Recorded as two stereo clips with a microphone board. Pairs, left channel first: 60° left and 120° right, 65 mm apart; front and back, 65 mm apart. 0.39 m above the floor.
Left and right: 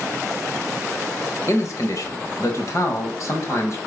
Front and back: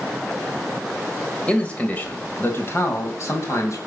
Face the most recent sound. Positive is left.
turn(degrees=30)